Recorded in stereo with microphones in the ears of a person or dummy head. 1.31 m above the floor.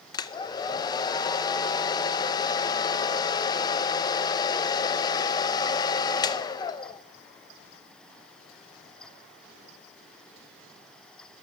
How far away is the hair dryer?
About 0.5 m.